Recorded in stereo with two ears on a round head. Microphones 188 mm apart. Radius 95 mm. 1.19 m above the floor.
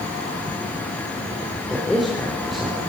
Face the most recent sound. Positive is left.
turn(degrees=0)  # may be behind; listen again after turning